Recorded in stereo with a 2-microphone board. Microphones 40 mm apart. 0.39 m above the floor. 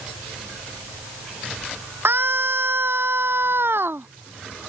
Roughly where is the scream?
Right.